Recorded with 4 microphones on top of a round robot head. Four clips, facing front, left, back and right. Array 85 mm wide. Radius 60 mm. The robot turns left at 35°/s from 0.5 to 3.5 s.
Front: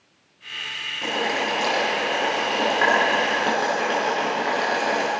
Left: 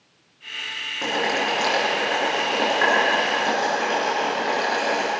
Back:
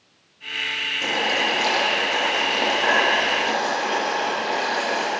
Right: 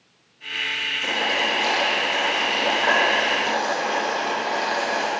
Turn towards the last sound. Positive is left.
turn(degrees=20)